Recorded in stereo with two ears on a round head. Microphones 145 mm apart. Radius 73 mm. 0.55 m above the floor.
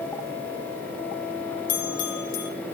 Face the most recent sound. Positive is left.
turn(degrees=55)  # may be behind; listen again after turning